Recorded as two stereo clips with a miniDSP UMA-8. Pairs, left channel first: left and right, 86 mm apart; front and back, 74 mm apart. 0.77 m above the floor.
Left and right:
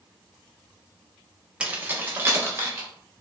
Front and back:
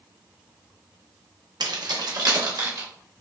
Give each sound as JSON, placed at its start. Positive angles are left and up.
{"t": 1.6, "sound": "keys jangling", "azimuth_deg": -165, "distance_m": 0.6}